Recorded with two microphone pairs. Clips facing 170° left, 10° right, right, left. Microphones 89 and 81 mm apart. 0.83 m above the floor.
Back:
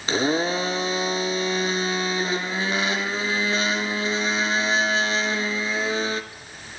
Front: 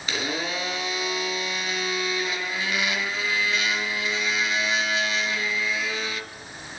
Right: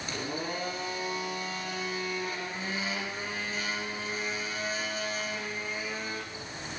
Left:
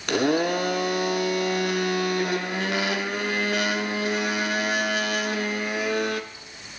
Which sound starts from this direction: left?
A blender, at 0.1 s.